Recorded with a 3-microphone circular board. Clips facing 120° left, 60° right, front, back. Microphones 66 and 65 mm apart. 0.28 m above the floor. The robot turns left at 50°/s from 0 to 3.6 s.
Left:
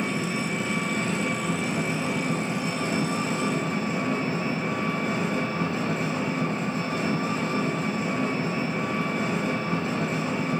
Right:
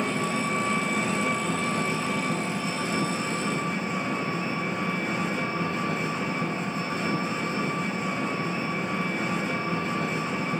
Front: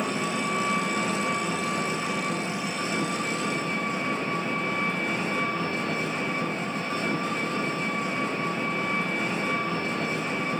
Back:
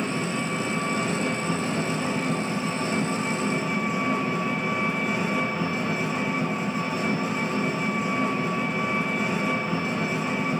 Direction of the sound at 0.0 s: 80° right.